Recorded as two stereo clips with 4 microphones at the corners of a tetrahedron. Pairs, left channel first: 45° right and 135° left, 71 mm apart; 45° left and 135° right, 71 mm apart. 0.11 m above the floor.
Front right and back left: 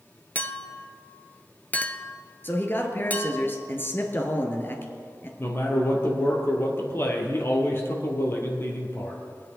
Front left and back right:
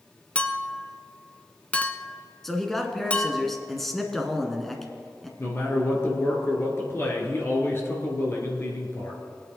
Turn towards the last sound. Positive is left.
turn(degrees=0)